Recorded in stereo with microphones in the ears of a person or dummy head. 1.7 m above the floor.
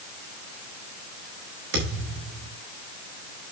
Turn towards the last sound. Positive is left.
turn(degrees=-60)  # may be behind; listen again after turning